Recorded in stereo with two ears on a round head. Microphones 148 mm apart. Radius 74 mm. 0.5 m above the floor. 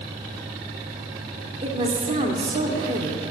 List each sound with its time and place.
1.6 s a woman speaking: 35° right (ahead or behind), 1.4 m